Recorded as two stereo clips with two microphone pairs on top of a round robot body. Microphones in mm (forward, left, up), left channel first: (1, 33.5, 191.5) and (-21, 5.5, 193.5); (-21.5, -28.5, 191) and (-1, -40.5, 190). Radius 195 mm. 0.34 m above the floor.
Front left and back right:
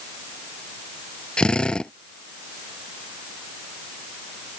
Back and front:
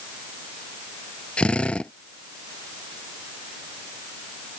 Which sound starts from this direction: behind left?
A drill, at 1.4 s.